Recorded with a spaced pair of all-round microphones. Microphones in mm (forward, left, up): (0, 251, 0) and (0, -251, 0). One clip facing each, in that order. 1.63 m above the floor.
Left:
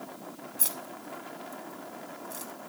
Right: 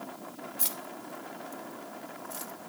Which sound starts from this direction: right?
Keys jangling, at 0.6 s.